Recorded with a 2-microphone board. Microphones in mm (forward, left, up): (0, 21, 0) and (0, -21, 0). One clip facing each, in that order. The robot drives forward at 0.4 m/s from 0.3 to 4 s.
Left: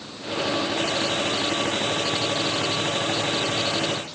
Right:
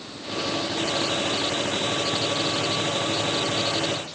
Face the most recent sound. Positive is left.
No sound to turn to.